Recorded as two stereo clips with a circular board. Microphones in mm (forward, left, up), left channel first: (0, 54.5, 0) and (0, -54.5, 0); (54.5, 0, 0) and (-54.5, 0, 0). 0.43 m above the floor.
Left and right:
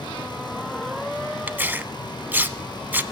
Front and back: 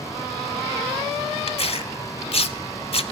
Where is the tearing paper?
20° right, 0.5 m.